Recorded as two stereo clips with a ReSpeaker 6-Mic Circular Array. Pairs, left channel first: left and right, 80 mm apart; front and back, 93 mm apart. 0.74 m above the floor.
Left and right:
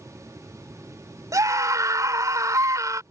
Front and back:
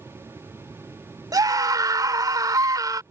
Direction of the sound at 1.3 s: 135° right.